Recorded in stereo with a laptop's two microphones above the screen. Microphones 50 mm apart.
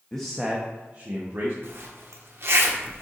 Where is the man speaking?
15° left (ahead or behind), 0.9 m; by 1.5 s 55° right (ahead or behind), 1.6 m.